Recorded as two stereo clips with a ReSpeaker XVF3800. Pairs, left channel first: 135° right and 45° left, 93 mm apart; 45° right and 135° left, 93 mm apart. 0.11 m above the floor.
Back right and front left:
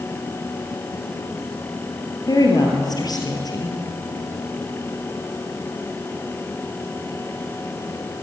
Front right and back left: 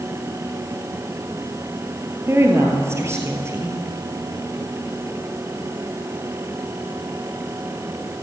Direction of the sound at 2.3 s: 170° right.